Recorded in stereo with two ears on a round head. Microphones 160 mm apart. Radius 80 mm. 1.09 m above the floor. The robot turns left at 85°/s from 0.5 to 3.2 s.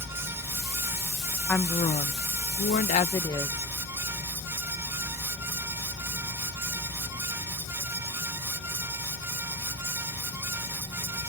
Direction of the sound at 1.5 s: 170° left.